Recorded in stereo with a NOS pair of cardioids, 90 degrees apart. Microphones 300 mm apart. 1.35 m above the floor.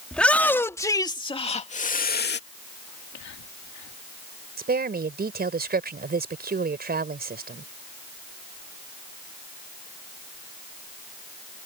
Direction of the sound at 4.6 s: 30° right.